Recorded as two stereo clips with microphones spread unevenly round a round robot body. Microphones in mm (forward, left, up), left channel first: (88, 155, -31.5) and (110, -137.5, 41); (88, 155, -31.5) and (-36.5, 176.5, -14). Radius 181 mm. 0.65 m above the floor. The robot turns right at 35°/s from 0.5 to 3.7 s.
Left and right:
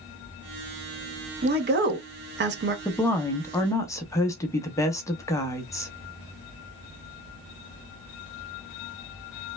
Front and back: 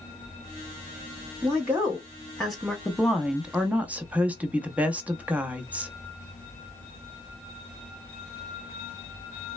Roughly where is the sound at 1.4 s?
Behind right.